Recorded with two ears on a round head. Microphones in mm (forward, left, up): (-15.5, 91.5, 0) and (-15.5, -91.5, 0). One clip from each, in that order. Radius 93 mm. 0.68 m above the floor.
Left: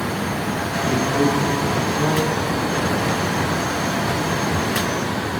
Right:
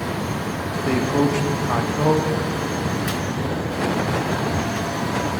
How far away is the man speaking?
About 0.8 m.